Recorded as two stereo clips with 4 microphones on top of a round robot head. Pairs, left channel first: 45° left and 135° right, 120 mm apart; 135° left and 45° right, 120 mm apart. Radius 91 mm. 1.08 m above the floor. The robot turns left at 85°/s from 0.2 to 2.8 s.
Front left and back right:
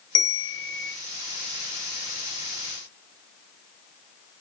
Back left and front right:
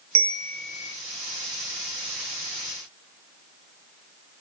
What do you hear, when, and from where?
0.1 s a bell: 10° right, 2 m; by 0.9 s 70° right, 2 m